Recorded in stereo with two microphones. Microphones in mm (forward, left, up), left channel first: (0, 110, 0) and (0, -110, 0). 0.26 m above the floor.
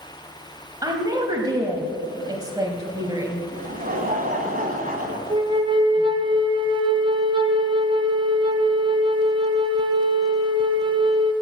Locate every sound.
0.8 s a woman speaking: 20° right (ahead or behind), 1.1 m
3.5 s laughter: 40° right (ahead or behind), 1.9 m
5.3 s a flute: 20° right (ahead or behind), 0.8 m